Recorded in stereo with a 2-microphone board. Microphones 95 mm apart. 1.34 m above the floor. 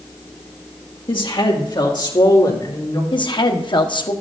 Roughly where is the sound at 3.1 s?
Left.